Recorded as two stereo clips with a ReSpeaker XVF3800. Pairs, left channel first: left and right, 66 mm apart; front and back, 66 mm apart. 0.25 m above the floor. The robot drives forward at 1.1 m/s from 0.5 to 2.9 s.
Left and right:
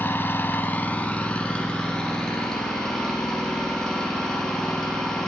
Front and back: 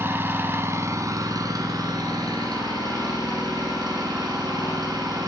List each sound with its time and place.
0.0 s an engine running: 135° left, 1.0 m; by 5.3 s 170° left, 3.5 m